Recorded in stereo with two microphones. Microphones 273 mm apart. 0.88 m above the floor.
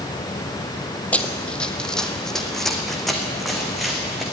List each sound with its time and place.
1.1 s running footsteps: 5° left (ahead or behind), 1.5 m; by 4.2 s centre (ahead or behind), 4 m